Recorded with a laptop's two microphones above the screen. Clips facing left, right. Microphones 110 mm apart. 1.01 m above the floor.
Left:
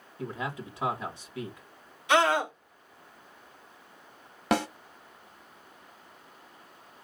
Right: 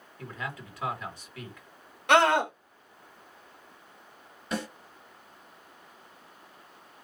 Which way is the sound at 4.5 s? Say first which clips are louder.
Left 7 dB; 90° left.